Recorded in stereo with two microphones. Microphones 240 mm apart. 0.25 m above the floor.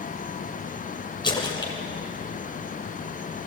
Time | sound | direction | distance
1.2 | a splash | 20° left (ahead or behind) | 2.5 m